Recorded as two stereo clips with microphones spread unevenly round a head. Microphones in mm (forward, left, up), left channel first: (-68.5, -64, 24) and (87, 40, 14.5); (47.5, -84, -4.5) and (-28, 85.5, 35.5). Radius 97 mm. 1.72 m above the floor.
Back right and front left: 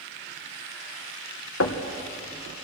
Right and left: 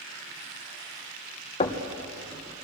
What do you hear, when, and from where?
1.6 s knocking: 130° right, 1.6 m